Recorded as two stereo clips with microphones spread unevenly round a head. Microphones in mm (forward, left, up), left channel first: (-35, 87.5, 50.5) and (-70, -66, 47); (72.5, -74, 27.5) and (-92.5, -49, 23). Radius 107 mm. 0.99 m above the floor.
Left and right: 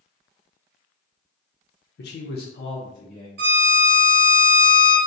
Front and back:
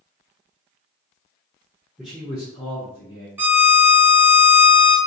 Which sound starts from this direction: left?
A man speaking, at 2.0 s.